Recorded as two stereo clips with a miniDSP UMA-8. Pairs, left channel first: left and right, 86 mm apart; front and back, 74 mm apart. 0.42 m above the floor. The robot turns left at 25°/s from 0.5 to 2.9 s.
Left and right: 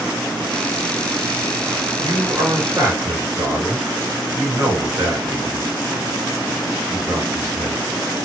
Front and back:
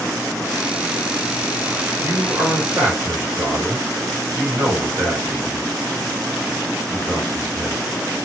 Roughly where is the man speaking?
Right.